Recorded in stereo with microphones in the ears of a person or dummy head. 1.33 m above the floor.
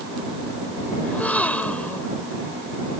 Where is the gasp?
5° left (ahead or behind).